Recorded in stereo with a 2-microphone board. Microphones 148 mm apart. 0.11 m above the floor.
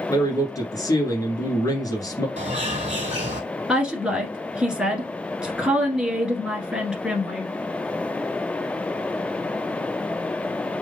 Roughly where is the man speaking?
Left.